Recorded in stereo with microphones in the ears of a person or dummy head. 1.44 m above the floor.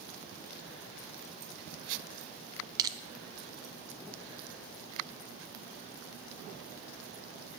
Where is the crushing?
25° right (ahead or behind), 0.7 m.